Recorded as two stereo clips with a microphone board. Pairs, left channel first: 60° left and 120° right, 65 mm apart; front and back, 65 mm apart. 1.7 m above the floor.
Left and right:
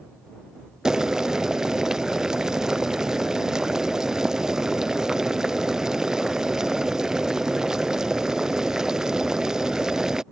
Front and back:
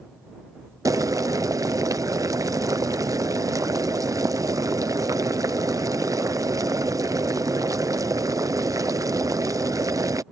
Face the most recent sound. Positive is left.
turn(degrees=160)